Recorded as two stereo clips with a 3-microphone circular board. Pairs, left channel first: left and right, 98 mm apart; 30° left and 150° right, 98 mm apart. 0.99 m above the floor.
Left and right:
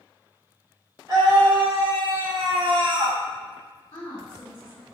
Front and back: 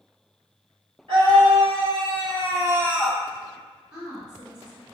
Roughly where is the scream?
Behind right.